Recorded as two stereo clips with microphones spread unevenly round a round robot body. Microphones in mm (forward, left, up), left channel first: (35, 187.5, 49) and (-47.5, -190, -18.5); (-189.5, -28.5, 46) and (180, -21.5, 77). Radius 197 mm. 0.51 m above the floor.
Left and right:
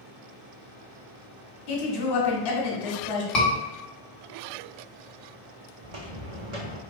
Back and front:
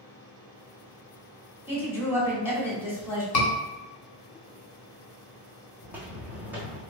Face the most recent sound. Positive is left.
turn(degrees=-85)